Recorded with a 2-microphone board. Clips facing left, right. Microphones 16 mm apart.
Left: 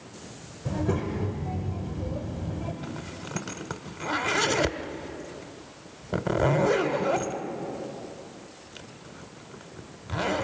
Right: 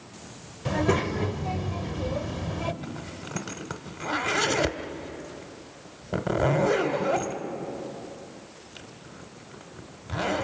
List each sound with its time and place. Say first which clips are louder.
0.7 s a child speaking: right 4 dB; 50° right (ahead or behind), 1.2 m
2.8 s a zipper: even; 5° left (ahead or behind), 0.9 m